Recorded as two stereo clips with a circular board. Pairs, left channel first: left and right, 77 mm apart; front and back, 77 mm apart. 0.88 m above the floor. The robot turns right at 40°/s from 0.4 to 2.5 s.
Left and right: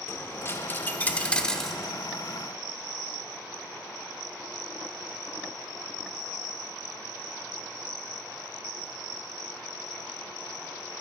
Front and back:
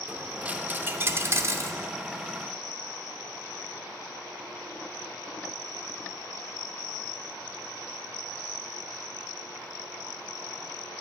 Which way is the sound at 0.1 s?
120° left.